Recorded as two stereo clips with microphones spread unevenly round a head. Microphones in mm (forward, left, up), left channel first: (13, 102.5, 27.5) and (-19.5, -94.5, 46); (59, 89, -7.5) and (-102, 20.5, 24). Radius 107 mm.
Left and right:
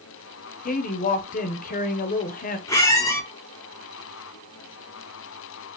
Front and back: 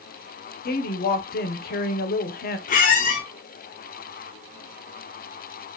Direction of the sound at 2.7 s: 5° left.